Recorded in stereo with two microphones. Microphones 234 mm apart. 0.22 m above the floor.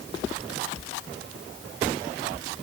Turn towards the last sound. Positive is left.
No sound to turn to.